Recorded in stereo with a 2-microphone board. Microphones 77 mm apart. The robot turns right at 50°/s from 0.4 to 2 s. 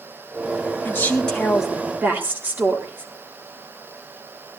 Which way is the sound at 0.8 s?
145° left.